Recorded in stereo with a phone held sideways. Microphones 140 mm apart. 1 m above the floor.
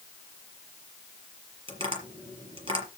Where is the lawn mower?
I don't hear a lawn mower.